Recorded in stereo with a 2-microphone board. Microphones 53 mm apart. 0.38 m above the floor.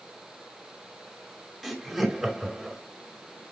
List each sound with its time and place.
1.6 s laughter: 5° right (ahead or behind), 2 m